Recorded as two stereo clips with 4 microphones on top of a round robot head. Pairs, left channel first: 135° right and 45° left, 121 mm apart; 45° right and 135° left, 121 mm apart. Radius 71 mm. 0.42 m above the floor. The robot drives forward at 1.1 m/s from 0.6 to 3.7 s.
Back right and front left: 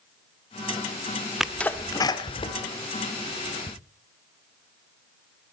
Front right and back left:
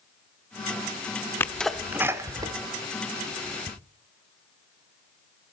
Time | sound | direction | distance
1.4 | a sneeze | 35° right | 0.8 m